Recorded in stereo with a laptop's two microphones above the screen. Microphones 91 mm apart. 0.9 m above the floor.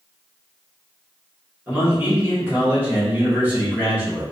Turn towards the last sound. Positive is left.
turn(degrees=-20)  # may be behind; listen again after turning